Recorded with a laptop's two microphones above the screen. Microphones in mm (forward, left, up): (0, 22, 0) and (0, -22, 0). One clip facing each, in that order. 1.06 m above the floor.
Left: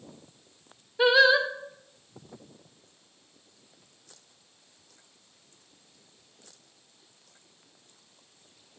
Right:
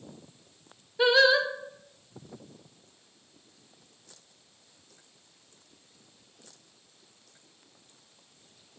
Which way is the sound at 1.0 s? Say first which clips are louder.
Left 1 dB; 10° left (ahead or behind).